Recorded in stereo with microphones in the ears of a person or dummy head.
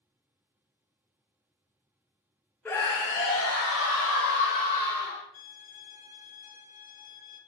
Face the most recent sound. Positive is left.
turn(degrees=45)  # may be behind; listen again after turning